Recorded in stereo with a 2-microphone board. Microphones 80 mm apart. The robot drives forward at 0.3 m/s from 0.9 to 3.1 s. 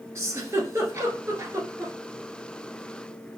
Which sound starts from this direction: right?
A giggle, at 0.1 s.